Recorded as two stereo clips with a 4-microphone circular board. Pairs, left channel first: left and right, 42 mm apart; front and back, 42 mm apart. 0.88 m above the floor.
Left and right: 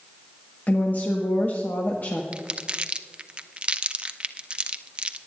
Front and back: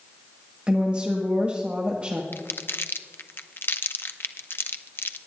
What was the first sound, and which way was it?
A woman speaking, 120° left.